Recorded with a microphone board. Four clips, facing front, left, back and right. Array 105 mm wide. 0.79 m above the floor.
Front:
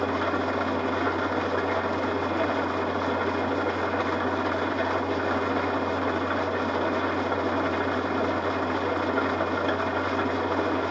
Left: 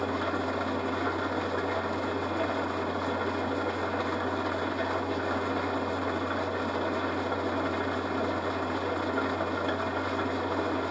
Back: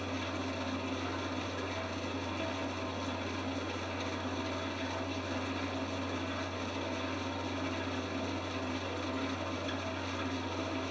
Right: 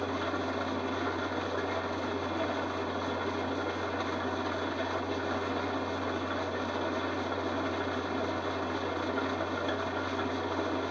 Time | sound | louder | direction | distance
0.0 | an engine running | left 3 dB, front 12 dB | 15° left | 0.7 m